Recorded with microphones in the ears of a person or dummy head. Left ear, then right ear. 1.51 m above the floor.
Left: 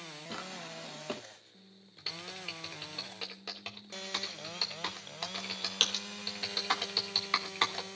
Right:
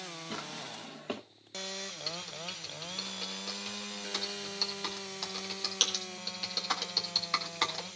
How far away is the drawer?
About 2 m.